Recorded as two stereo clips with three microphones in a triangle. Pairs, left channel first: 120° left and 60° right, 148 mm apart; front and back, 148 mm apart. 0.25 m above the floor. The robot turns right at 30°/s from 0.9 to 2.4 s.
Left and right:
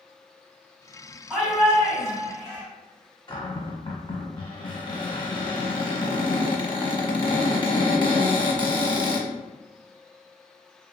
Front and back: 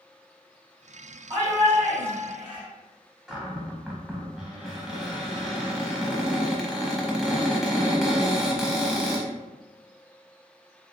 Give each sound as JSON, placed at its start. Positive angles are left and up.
{"t": 1.3, "sound": "a shout", "azimuth_deg": -135, "distance_m": 1.9}
{"t": 3.3, "sound": "a cupboard door", "azimuth_deg": 95, "distance_m": 0.7}